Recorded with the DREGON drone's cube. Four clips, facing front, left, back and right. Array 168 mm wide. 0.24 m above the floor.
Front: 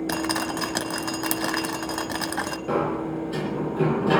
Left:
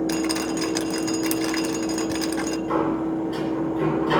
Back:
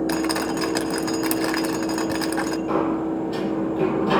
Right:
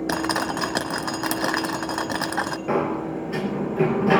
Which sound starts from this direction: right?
Dripping, at 0.1 s.